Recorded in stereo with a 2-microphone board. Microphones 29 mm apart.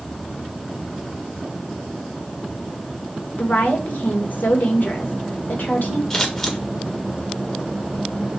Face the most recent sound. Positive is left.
turn(degrees=25)  # may be behind; listen again after turning